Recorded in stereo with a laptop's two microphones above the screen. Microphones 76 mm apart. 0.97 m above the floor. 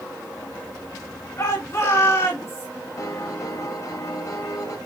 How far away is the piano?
About 2.5 m.